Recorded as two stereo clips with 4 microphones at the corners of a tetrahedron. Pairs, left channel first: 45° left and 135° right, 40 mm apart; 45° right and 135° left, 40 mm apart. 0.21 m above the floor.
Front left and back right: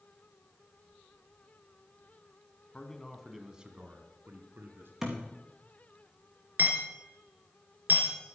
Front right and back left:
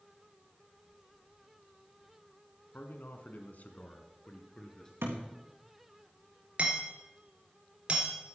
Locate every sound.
2.7 s a man speaking: 20° right, 1.6 m; by 4.9 s 115° right, 2.5 m
5.0 s a thud: 145° left, 3.5 m
6.6 s hammering: 165° right, 2.5 m